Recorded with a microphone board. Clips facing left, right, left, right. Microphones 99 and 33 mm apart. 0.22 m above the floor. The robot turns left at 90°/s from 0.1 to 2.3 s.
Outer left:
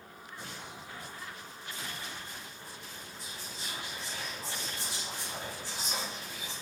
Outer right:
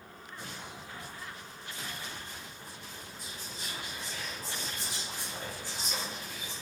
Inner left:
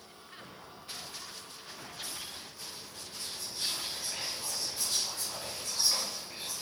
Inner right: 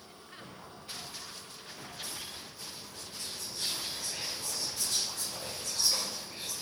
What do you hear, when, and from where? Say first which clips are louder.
3.2 s whispering: even, inner left 1 dB; 35° left (ahead or behind), 1.9 m